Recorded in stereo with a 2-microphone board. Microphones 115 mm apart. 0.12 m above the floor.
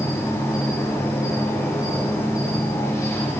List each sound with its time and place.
0.0 s an insect: 30° left (ahead or behind), 6 m